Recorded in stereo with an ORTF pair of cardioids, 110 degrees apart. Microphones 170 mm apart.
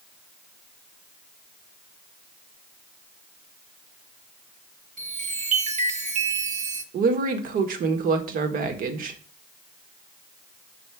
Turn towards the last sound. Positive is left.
turn(degrees=-60)